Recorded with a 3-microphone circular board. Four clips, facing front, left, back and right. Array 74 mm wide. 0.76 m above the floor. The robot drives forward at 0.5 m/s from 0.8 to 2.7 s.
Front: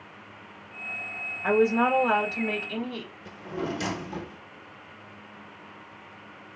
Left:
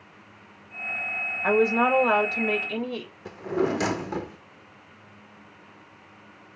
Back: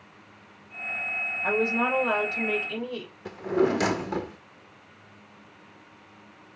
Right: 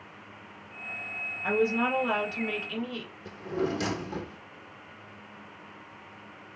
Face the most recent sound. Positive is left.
turn(degrees=145)